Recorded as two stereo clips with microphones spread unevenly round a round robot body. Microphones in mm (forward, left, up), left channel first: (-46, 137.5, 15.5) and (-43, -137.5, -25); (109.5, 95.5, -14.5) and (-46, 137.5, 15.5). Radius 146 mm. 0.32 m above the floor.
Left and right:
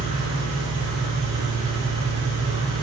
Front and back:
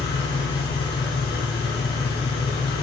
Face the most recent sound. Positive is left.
turn(degrees=-15)